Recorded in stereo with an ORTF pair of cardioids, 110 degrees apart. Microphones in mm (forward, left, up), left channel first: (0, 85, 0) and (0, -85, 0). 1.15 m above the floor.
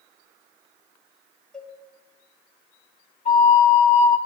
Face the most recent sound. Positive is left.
turn(degrees=45)